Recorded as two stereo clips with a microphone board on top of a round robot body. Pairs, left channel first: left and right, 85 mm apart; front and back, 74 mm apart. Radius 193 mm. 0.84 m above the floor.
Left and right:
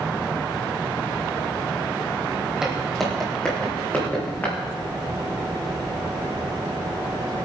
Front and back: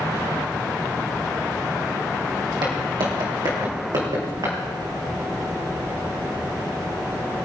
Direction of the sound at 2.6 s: 170° right.